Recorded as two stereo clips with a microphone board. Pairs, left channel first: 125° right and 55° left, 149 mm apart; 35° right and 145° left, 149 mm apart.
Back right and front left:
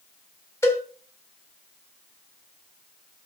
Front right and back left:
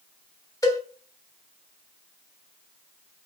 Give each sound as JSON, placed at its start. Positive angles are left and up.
{"t": 0.6, "sound": "a cowbell", "azimuth_deg": -75, "distance_m": 1.4}